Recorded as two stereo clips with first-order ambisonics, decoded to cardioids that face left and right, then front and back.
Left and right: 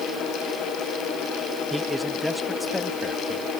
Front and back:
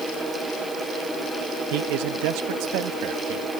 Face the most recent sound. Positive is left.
turn(degrees=165)